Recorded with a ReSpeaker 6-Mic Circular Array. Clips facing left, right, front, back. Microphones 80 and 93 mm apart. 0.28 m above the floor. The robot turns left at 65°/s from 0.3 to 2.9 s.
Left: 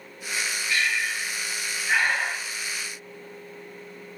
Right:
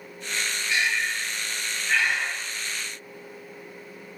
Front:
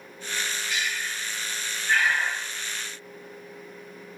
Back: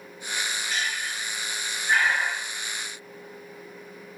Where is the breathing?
150° right, 1.1 m; by 2.5 s 95° left, 1.1 m.